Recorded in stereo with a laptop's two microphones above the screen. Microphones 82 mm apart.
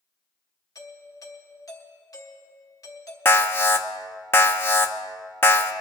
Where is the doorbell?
45° left (ahead or behind), 1.4 m.